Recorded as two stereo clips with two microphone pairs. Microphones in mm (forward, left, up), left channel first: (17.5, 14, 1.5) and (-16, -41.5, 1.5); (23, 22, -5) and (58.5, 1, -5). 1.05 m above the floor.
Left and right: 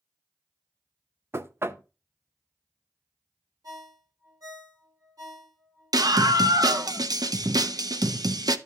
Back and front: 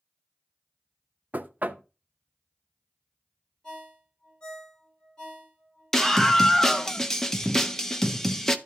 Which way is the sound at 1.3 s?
70° right.